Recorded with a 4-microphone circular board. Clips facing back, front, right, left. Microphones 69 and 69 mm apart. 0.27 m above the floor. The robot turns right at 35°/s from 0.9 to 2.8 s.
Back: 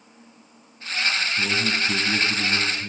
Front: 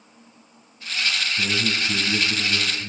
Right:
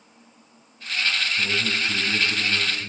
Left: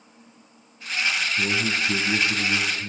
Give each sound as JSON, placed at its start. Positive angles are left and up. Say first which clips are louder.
{"t": 1.4, "sound": "a man speaking", "louder": "back 1 dB, left 1 dB", "azimuth_deg": 125, "distance_m": 2.0}